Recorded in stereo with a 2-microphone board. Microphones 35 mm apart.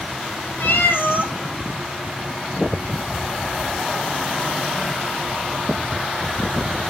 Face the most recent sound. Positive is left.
turn(degrees=85)